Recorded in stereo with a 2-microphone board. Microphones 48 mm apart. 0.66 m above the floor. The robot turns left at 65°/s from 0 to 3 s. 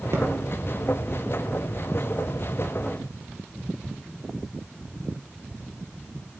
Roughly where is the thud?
Right.